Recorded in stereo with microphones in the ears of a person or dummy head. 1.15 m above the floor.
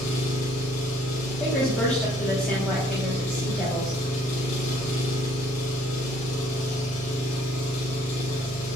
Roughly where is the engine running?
Left.